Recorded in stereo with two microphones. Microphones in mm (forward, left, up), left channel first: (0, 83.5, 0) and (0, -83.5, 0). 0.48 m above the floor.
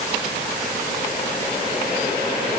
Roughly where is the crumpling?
No crumpling in this recording.